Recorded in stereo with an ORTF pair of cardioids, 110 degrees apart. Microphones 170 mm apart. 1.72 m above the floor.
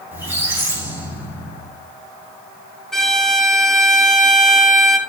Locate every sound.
0.1 s a squeak: 10° right, 2.5 m
2.9 s a violin: straight ahead, 0.8 m